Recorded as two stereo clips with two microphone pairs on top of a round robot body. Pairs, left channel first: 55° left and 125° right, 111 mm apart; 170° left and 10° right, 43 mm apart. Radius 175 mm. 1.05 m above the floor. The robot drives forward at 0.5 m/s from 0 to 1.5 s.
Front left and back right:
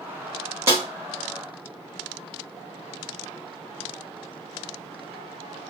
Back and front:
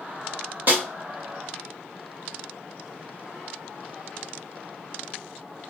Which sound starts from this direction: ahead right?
A snare drum, at 0.7 s.